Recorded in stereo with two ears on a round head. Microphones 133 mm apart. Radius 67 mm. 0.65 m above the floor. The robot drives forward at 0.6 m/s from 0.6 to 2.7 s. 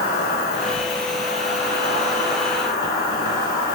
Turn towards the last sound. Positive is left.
turn(degrees=35)  # may be behind; listen again after turning